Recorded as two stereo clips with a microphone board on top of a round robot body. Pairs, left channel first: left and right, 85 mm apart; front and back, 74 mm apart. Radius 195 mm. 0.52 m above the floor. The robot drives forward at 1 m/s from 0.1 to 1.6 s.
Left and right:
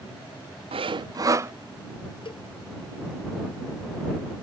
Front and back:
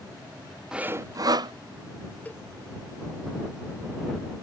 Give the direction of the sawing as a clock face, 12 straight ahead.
3 o'clock.